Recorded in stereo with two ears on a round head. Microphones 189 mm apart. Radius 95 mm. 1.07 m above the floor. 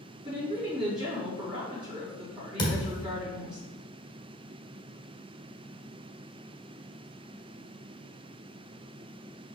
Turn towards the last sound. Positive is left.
turn(degrees=20)  # may be behind; listen again after turning